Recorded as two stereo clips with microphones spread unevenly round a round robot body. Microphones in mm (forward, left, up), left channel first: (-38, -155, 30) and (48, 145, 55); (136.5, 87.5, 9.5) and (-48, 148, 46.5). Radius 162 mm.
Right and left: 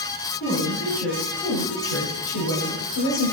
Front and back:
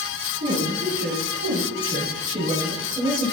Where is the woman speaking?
160° right, 2.5 m; by 3.3 s 95° right, 1.7 m.